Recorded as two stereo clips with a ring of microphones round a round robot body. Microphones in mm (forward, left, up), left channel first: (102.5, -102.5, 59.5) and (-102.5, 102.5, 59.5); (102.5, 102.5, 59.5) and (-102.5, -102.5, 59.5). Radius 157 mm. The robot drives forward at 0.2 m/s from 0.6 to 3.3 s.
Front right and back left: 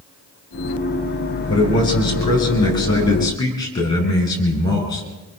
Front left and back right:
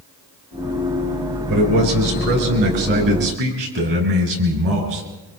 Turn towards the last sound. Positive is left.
turn(degrees=-120)